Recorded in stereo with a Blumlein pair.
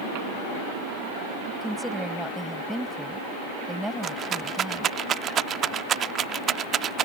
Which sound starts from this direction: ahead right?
A rattle, at 4.0 s.